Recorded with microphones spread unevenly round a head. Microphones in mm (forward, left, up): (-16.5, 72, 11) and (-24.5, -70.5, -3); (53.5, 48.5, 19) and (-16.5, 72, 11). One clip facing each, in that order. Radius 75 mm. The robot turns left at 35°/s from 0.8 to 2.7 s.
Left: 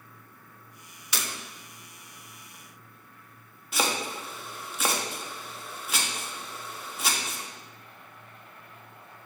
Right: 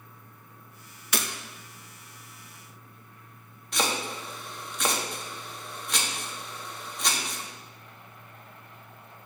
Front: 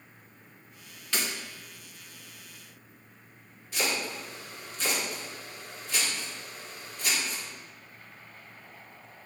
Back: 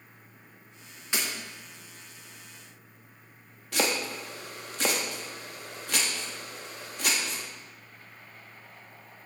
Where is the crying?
No crying in this recording.